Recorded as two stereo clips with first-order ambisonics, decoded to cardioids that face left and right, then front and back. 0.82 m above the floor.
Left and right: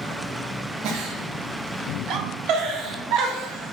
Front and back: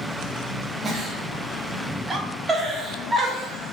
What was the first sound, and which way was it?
A giggle, 110° right.